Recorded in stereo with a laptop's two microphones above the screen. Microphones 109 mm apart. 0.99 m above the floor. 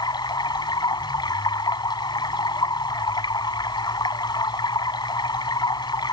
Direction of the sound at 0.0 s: 40° left (ahead or behind).